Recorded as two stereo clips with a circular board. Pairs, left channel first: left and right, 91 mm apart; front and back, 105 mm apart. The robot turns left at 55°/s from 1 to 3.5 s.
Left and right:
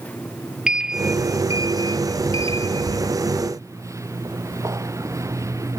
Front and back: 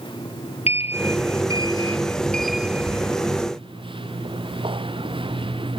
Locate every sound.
0.7 s a sliding door: 10° right; by 5.8 s 145° right